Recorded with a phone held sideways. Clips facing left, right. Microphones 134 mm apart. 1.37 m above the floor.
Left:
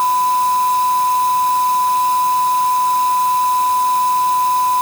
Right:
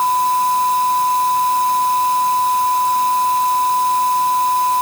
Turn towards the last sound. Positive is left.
No sound to turn to.